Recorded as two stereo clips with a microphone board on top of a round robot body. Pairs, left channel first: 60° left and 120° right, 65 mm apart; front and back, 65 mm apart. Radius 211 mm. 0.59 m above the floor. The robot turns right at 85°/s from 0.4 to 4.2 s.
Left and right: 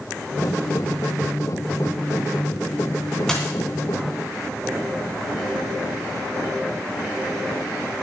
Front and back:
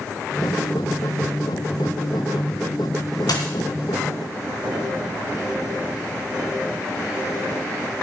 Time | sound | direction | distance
3.3 | a dropped coin | 25° right | 2.5 m